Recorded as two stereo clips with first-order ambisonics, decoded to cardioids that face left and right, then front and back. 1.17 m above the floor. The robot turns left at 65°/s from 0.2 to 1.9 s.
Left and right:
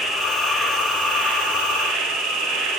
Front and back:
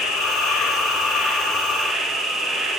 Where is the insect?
15° left, 1.8 m; by 2.8 s 100° right, 1.8 m.